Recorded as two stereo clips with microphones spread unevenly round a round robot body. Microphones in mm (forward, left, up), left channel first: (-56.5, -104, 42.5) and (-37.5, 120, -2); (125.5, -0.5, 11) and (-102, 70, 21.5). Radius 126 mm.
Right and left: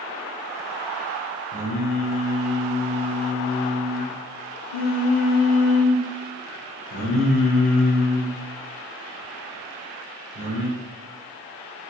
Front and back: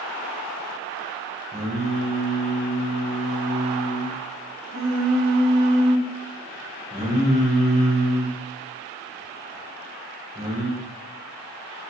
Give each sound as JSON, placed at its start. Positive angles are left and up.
{"t": 1.5, "sound": "singing", "azimuth_deg": -125, "distance_m": 2.0}